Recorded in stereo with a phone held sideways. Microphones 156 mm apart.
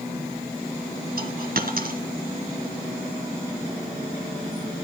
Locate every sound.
1.2 s a dropped coin: 70° right (ahead or behind), 2.0 m